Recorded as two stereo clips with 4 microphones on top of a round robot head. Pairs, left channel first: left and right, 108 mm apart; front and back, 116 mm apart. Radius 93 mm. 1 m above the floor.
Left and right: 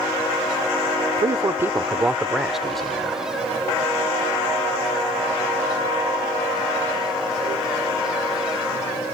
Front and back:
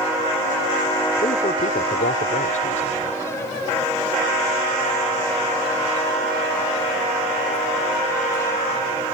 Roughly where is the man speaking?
Ahead right.